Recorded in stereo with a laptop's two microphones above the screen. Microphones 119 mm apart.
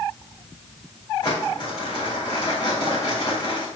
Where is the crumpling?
40° left (ahead or behind), 3 m.